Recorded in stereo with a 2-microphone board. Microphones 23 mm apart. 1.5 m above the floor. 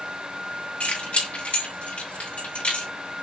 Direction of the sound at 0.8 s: 75° left (ahead or behind).